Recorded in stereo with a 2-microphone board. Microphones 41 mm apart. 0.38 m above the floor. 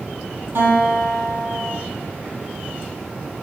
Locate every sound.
0.6 s a guitar: 60° right (ahead or behind), 5.5 m